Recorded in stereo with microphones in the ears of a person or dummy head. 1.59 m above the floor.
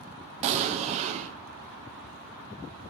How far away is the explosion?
About 0.9 m.